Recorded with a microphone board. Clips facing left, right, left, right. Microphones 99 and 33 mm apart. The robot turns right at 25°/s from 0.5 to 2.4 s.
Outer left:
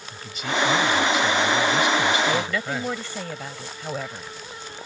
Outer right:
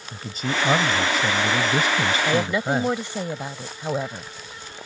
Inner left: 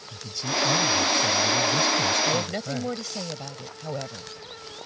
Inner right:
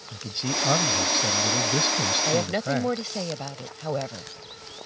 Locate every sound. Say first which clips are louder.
0.1 s a man speaking: even, inner left 1 dB; 105° right; by 3.0 s 60° right
2.2 s a woman speaking: outer right 3 dB, inner right 2 dB; 20° right (ahead or behind)